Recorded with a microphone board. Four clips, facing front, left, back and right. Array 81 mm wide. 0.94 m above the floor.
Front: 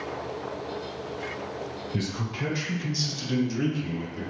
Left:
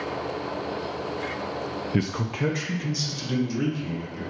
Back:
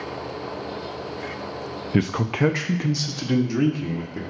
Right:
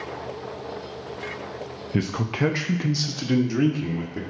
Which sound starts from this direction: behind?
A man speaking, at 1.9 s.